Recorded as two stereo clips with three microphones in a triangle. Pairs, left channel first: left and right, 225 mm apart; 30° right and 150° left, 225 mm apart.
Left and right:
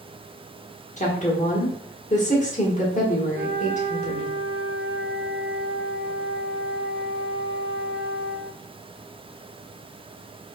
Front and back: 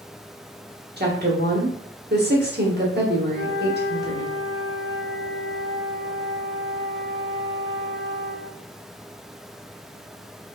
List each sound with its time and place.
1.0 s a woman speaking: 135° left, 1.0 m
3.3 s a flute: 45° right, 1.5 m